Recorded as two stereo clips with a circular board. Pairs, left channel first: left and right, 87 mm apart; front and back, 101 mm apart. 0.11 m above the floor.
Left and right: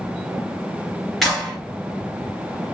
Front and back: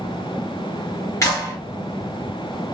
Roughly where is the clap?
Ahead.